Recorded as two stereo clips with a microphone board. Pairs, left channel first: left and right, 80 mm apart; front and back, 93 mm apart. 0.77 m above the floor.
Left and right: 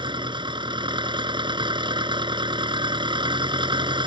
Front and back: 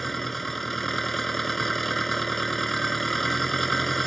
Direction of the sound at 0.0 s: 90° right.